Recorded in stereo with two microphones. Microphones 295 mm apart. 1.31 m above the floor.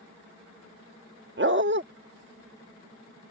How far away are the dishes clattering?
I don't hear dishes clattering.